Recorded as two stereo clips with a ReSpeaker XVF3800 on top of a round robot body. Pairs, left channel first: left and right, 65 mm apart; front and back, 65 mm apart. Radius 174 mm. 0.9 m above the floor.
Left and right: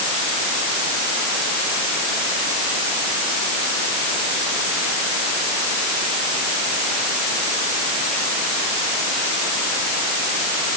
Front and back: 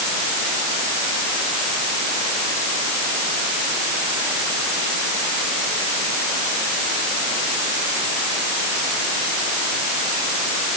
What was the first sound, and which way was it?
Only background noise.